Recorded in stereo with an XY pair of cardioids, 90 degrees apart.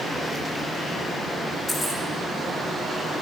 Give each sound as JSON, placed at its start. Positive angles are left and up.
{"t": 1.7, "sound": "keys jangling", "azimuth_deg": 40, "distance_m": 2.5}